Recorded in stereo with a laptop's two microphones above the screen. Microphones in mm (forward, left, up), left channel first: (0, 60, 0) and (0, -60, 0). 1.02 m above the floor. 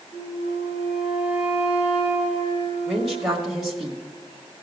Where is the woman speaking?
Centre (ahead or behind), 1.4 m.